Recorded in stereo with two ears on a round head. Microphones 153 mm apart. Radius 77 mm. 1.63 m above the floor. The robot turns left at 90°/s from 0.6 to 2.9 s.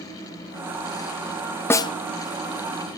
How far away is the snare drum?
About 0.5 m.